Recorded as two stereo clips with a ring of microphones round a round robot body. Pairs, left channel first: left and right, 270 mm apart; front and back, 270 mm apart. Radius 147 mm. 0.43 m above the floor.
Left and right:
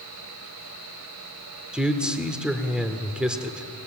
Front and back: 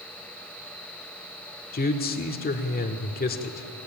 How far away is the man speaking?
About 1.4 m.